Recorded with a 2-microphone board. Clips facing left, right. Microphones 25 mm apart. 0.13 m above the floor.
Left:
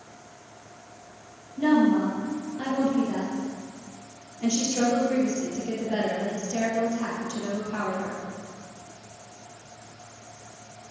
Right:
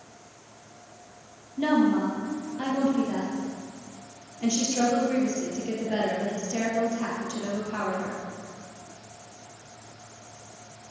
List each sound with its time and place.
1.6 s a woman speaking: 20° right (ahead or behind), 3 m